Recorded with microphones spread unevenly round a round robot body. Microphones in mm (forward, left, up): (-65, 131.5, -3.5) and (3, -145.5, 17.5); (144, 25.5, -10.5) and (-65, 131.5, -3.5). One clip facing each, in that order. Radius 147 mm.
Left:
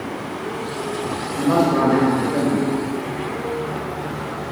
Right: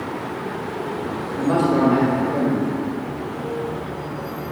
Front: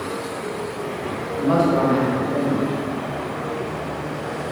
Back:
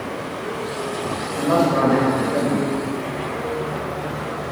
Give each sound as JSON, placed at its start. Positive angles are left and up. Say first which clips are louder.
{"t": 1.4, "sound": "a man speaking", "louder": "left 1 dB, even", "azimuth_deg": -170, "distance_m": 1.6}